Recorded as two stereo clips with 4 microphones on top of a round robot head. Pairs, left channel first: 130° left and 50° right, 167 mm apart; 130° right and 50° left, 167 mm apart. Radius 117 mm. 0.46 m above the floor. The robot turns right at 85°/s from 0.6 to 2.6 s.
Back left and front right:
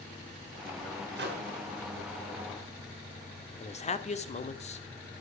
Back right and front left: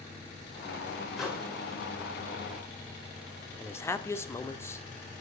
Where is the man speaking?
160° left, 1.6 m.